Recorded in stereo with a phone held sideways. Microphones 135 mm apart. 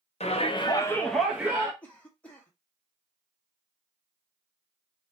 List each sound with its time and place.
0.2 s a shout: 50° left (ahead or behind), 1.0 m; by 1.7 s 25° right (ahead or behind), 1.0 m
1.8 s a cough: 10° left (ahead or behind), 1.5 m